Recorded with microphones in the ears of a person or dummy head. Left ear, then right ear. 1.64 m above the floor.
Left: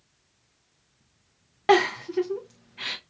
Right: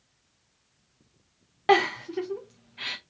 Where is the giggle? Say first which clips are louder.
Left 1 dB; centre (ahead or behind), 0.5 m.